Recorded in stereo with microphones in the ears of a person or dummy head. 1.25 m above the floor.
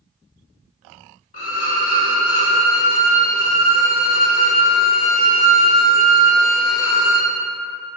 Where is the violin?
45° left (ahead or behind), 0.5 m.